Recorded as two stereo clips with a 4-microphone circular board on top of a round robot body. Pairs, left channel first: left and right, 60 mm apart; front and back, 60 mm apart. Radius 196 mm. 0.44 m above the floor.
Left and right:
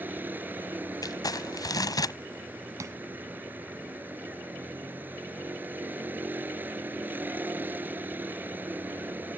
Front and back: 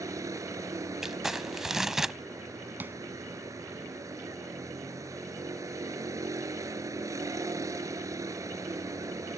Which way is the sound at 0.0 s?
150° right.